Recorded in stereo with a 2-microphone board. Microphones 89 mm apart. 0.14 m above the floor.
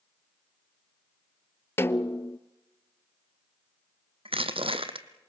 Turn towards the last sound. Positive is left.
turn(degrees=-75)  # may be behind; listen again after turning